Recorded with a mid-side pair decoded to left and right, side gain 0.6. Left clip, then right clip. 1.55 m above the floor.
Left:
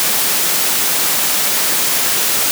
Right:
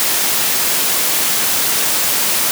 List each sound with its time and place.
Only background noise.